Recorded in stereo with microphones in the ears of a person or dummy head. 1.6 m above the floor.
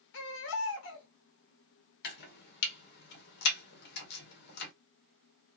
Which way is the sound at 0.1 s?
60° left (ahead or behind).